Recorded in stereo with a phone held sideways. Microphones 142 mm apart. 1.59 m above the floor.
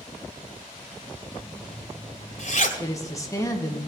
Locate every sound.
1.3 s a zipper: 60° left (ahead or behind), 2.5 m
2.8 s a woman speaking: 25° left (ahead or behind), 1.9 m